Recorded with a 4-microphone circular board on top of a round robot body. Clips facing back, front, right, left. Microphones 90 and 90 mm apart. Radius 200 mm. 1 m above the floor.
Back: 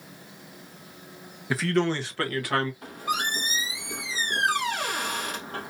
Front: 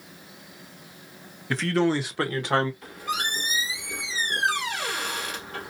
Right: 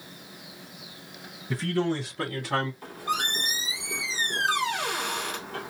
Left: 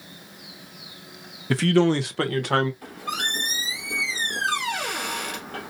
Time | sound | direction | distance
1.5 | a man speaking | 100° left | 0.7 m
2.8 | a squeak | 125° left | 1.5 m